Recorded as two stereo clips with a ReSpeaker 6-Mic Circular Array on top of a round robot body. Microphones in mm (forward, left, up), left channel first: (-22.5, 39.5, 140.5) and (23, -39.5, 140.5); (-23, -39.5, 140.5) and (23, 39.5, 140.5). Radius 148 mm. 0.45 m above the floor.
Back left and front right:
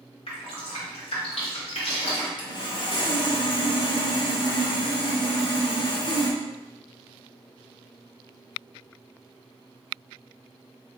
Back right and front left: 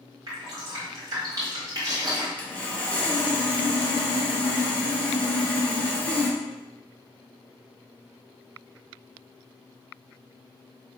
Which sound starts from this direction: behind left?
Dripping, at 0.3 s.